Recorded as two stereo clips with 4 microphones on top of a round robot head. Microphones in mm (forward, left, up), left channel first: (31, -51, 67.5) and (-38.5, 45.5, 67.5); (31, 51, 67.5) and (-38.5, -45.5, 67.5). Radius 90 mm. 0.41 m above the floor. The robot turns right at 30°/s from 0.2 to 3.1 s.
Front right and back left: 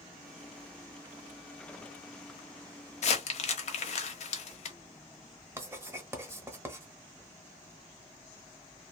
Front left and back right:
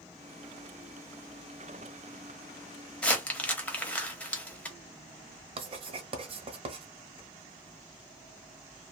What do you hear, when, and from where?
3.0 s crumpling: 25° right, 0.9 m
5.6 s writing: 165° right, 0.9 m